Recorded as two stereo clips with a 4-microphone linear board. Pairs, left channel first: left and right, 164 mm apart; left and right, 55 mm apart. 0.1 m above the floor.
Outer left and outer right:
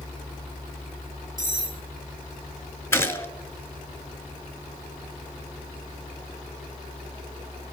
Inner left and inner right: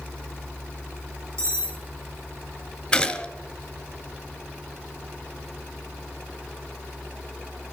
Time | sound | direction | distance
1.4 | cutlery clinking | 60° right (ahead or behind) | 2.5 m
2.9 | a gunshot | 15° left (ahead or behind) | 1.2 m